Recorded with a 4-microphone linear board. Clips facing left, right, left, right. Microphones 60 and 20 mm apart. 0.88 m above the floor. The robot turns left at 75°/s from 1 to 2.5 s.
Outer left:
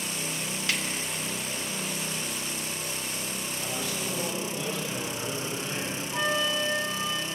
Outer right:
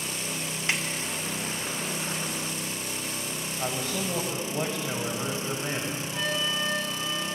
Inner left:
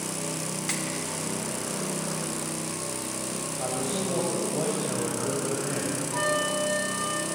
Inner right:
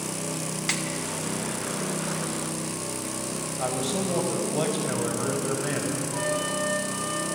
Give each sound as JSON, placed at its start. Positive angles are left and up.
{"t": 0.7, "sound": "a snare drum", "side_deg": -25, "distance_m": 1.9}
{"t": 3.6, "sound": "a man speaking", "side_deg": -40, "distance_m": 5.5}
{"t": 6.1, "sound": "a flute", "side_deg": 30, "distance_m": 3.5}